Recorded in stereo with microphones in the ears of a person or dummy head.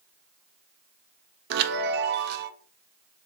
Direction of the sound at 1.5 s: 55° right (ahead or behind).